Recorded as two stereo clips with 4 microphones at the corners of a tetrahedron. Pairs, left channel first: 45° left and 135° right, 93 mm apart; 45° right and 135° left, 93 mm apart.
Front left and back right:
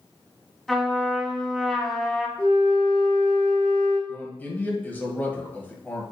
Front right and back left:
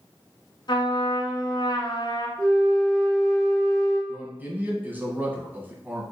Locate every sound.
0.7 s a trumpet: 45° right, 0.9 m
2.4 s a flute: 40° left, 2.5 m
4.1 s a man speaking: 90° left, 1.1 m